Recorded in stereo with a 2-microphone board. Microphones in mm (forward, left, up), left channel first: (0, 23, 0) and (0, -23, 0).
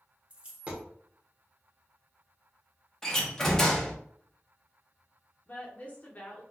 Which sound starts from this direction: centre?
A door slam, at 3.0 s.